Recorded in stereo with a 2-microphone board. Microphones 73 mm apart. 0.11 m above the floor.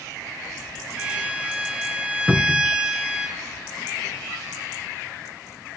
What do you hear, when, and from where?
1.0 s a violin: 15° right (ahead or behind), 0.7 m
2.3 s a cupboard door: 5° right (ahead or behind), 0.6 m